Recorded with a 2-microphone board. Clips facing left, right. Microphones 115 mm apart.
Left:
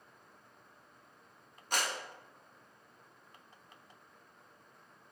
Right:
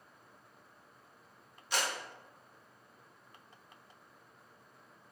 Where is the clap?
50° left (ahead or behind), 1.0 m.